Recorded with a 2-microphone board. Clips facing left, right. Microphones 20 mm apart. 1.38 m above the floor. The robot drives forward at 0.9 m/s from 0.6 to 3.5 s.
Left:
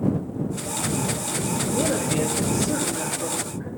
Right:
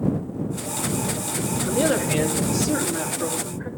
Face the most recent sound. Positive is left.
turn(degrees=-30)  # may be behind; listen again after turning